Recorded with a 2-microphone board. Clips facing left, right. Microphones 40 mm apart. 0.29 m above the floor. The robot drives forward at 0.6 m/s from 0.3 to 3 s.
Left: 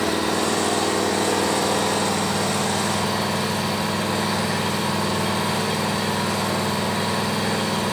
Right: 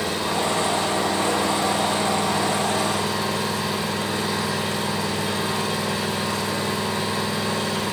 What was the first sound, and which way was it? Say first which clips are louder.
An engine running: left 2 dB; 75° left (ahead or behind).